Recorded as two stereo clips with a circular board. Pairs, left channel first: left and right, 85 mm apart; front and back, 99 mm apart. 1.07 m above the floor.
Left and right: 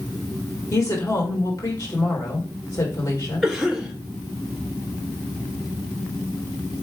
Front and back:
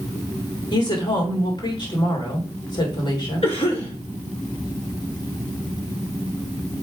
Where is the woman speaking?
40° left, 3 m.